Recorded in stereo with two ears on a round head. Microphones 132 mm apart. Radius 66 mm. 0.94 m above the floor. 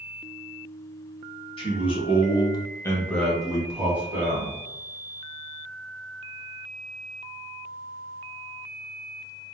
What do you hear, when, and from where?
1.6 s a man speaking: 40° left (ahead or behind), 0.8 m; by 4.5 s 15° right (ahead or behind), 1.2 m